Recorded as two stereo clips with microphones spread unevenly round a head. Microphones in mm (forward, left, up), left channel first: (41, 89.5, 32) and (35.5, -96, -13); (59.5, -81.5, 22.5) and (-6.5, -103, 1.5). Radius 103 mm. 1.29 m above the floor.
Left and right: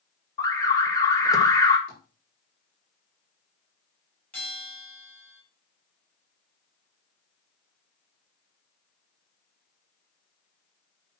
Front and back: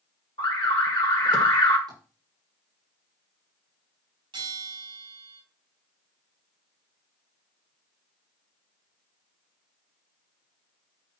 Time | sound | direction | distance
0.4 | an alarm | 15° left | 2 m
1.9 | tapping | 150° left | 6 m
4.3 | a bell | 170° left | 5 m